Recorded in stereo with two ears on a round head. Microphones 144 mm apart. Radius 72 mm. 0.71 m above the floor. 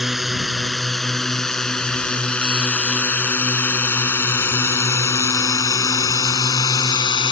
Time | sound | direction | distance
0.0 | a drone | centre (ahead or behind) | ?